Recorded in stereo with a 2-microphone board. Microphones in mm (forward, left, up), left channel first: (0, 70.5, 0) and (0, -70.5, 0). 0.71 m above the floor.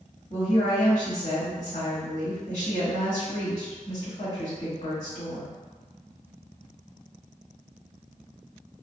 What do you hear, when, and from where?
0.3 s a woman speaking: 55° left (ahead or behind), 1.7 m